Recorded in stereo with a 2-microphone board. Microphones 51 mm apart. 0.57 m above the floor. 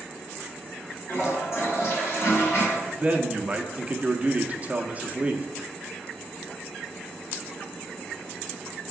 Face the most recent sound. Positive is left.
turn(degrees=-25)  # may be behind; listen again after turning